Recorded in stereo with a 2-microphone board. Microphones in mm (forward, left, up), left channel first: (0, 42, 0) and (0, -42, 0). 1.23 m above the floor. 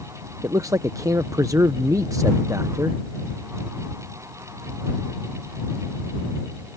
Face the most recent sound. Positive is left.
turn(degrees=-45)  # may be behind; listen again after turning